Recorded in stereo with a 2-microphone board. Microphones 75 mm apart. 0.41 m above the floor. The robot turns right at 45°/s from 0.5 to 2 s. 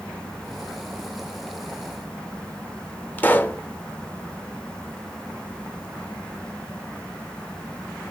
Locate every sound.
3.2 s a pop: 25° left (ahead or behind), 1.4 m